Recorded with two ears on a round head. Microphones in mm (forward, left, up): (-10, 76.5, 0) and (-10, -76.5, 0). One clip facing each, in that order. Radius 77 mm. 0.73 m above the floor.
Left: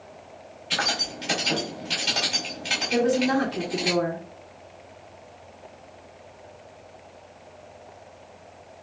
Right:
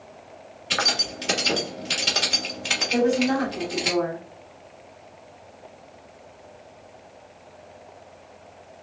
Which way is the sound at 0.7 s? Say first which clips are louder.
Right 1 dB; 60° right (ahead or behind).